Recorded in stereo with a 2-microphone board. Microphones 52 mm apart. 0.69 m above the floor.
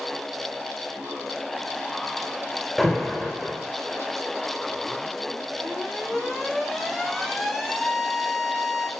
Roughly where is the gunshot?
No gunshot in this recording.